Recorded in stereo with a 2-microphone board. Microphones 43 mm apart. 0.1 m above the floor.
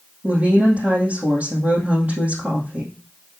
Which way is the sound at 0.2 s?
45° right (ahead or behind).